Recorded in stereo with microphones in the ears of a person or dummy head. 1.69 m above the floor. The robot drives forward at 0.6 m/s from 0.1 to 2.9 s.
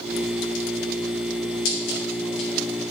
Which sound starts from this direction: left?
Scissors, at 1.6 s.